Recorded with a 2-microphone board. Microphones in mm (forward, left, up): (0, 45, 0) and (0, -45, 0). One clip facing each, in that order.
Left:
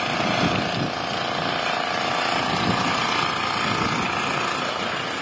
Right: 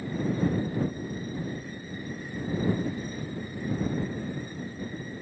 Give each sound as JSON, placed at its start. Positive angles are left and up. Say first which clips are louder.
{"t": 0.0, "sound": "an engine running", "louder": "left 6 dB", "side_deg": 85}